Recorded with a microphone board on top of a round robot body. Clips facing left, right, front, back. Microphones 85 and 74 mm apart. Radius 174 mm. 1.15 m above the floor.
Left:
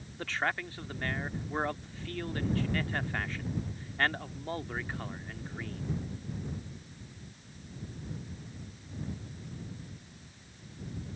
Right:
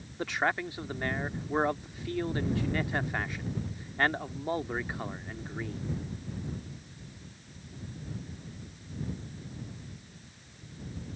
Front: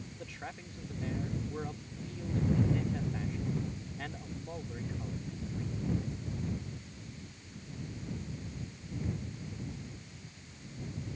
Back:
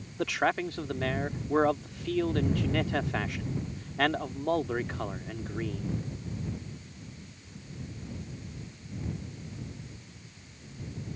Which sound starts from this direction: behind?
A man speaking, at 0.2 s.